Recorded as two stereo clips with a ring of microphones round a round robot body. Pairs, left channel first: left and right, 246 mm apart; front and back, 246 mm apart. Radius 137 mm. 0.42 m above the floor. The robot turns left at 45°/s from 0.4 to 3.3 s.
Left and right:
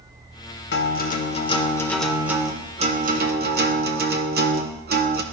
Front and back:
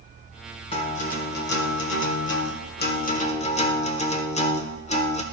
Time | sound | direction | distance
0.7 | a guitar | 60° left | 1.2 m